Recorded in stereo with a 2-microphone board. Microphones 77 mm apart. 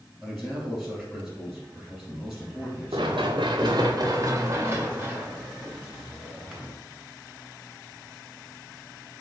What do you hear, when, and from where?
0.2 s a man speaking: centre (ahead or behind), 2 m
2.9 s running footsteps: 90° right, 0.9 m; by 6.7 s centre (ahead or behind), 1.9 m